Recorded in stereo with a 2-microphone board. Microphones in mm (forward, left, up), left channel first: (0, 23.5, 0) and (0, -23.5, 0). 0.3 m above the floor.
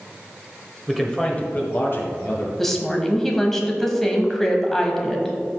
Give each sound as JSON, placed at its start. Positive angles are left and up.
{"t": 0.9, "sound": "a man speaking", "side_deg": 0, "distance_m": 1.3}
{"t": 2.6, "sound": "a woman speaking", "side_deg": 10, "distance_m": 1.4}